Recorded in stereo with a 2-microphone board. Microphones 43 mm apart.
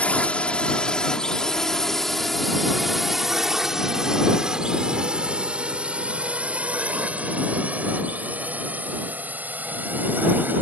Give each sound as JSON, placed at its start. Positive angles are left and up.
{"t": 0.0, "sound": "a drone", "side_deg": 30}